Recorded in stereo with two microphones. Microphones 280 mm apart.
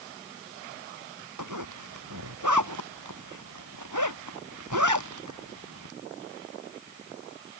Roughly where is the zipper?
Right.